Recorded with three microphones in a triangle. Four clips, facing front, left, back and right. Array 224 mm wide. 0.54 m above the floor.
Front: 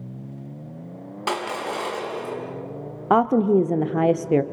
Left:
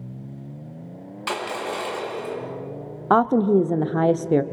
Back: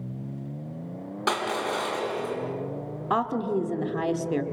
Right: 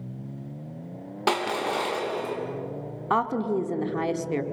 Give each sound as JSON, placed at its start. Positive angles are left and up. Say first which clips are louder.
{"t": 1.3, "sound": "crushing", "louder": "right 2 dB, even", "azimuth_deg": -100, "distance_m": 3.5}
{"t": 3.1, "sound": "a woman speaking", "louder": "left 8 dB, front 9 dB", "azimuth_deg": 40, "distance_m": 1.0}